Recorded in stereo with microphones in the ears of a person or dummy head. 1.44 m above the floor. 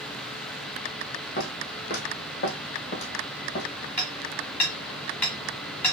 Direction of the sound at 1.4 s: 50° left (ahead or behind).